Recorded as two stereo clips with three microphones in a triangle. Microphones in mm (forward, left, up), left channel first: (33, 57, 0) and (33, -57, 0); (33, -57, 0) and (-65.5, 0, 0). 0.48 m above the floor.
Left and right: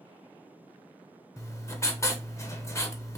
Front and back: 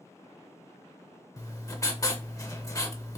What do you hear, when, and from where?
1.4 s writing: 25° left, 0.7 m